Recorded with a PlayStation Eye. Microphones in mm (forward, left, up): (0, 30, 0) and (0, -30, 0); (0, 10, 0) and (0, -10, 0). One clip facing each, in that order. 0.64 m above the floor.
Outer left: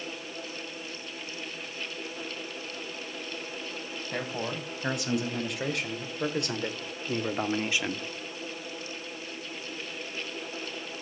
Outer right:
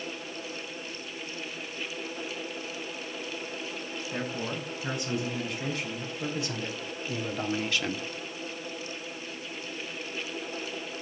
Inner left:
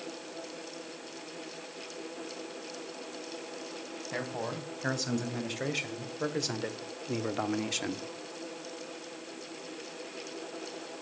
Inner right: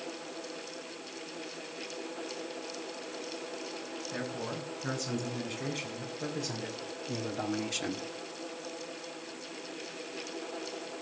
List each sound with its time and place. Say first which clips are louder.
4.1 s a man speaking: outer left 1 dB, inner left 3 dB; 80° left, 4.5 m; by 8.1 s 5° right (ahead or behind), 1.1 m